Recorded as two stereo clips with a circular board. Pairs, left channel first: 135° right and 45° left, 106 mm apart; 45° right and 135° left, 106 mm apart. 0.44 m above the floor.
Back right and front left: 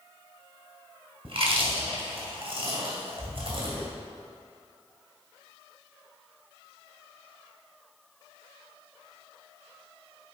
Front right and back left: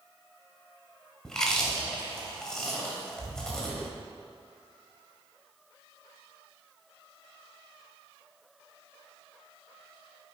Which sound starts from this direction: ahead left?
Chewing, at 1.2 s.